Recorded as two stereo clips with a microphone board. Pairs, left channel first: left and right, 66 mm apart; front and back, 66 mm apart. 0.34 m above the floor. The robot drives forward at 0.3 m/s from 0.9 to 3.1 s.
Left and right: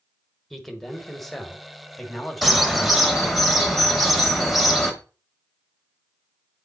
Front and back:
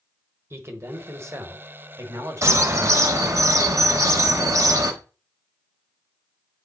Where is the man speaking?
175° left, 1.1 m; by 3.4 s straight behind, 1.6 m.